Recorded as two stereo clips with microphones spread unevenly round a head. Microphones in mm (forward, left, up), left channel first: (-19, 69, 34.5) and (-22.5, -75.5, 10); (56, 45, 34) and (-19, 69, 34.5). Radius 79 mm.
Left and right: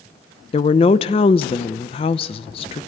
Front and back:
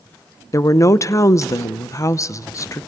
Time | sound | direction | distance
0.5 | a woman speaking | 35° left | 0.8 m